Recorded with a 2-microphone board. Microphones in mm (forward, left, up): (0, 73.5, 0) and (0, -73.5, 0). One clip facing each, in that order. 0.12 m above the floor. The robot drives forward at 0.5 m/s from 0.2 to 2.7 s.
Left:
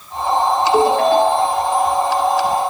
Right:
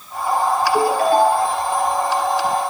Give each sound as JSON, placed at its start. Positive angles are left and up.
{"t": 0.7, "sound": "a ringtone", "side_deg": 70, "distance_m": 10.0}